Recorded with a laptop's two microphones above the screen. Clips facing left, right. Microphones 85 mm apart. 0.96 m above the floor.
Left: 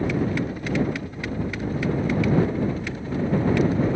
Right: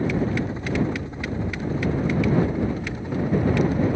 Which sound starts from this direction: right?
A helicopter, at 0.0 s.